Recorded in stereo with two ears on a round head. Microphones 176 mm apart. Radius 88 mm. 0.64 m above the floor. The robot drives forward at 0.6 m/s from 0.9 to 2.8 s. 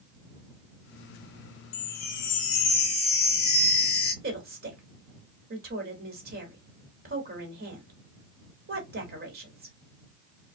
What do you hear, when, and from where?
1.7 s a chime: 60° left (ahead or behind), 0.6 m; by 4.1 s 30° left (ahead or behind), 0.9 m
4.2 s a woman speaking: 50° right (ahead or behind), 1.4 m